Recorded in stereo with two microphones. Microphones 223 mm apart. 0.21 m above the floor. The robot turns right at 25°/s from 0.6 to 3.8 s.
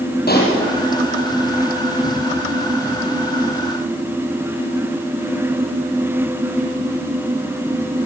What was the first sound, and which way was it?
A pop, 45° left (ahead or behind).